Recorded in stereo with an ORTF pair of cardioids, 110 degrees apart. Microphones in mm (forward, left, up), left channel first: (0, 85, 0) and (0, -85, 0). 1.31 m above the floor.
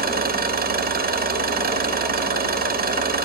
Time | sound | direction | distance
0.0 | an engine running | 65° right | 1.8 m